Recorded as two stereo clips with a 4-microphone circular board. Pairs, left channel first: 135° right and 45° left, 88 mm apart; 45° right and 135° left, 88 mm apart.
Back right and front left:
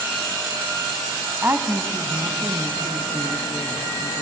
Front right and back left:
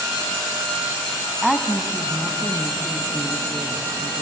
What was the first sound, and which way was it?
A woman speaking, 50° left.